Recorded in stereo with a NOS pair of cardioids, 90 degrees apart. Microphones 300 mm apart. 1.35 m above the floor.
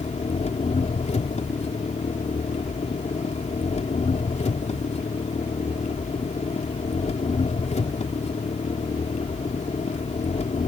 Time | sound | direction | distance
0.0 | an engine running | 20° left | ?